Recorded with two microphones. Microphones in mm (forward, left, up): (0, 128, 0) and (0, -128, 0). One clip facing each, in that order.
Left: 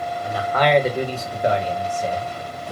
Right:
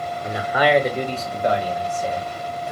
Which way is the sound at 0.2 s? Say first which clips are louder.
Right 1 dB; 25° right (ahead or behind).